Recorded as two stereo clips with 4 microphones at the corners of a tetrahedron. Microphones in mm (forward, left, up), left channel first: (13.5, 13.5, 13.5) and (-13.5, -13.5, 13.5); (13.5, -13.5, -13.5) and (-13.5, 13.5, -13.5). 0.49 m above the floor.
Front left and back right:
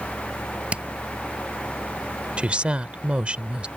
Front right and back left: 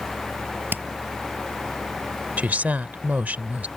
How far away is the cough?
No cough in this recording.